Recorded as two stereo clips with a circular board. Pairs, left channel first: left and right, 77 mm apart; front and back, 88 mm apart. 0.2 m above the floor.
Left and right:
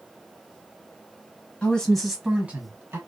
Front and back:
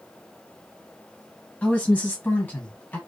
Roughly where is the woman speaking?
Ahead left.